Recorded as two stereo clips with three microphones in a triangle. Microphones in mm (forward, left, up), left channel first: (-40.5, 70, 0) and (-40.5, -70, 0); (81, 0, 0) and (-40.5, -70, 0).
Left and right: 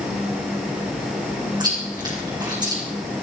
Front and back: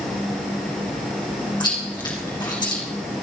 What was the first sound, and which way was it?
Chewing, 30° right.